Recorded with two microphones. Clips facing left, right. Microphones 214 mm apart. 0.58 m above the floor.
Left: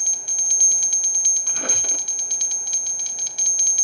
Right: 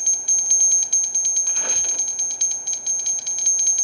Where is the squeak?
55° left (ahead or behind), 0.8 m.